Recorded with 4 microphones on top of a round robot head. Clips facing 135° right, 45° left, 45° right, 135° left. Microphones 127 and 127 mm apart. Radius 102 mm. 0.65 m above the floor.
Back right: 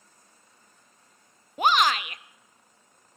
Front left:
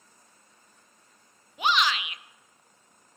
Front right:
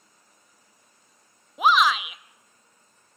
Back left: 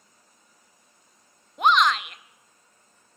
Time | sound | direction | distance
1.6 | a shout | 130° right | 0.6 m